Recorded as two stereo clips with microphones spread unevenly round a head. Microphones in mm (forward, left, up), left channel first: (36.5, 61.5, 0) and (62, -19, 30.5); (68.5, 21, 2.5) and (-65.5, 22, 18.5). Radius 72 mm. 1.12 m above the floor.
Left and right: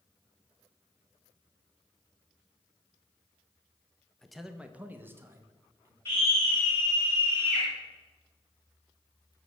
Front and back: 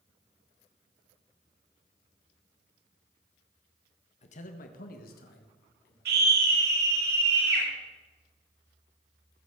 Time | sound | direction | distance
4.2 | a man speaking | 30° left | 1.4 m
6.0 | a scream | straight behind | 7 m